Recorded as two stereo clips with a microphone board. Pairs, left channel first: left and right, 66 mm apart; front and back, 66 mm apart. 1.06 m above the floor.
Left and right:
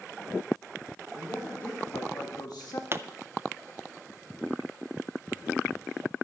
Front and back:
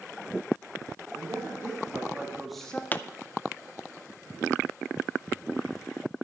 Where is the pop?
55° right, 0.5 m.